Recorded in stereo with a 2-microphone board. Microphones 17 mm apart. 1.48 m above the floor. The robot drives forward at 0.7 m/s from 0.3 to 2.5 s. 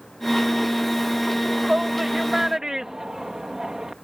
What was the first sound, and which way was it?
A shout, 50° right (ahead or behind).